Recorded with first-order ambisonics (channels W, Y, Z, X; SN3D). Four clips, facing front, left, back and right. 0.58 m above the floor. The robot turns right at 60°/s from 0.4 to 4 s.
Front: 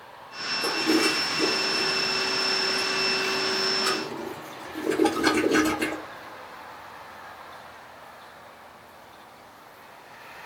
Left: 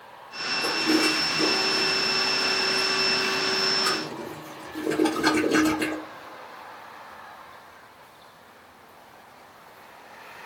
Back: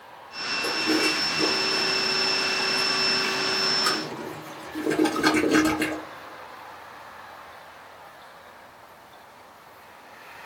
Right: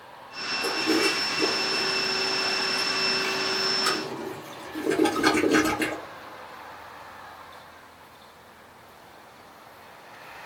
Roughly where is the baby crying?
I don't hear a baby crying.